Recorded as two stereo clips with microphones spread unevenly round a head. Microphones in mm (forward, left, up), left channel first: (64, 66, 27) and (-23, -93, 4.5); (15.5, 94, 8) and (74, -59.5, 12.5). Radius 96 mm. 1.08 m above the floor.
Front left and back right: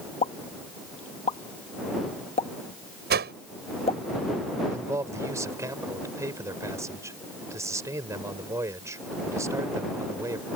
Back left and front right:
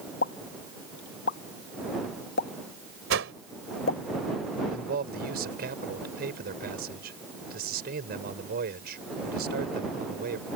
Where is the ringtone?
No ringtone in this recording.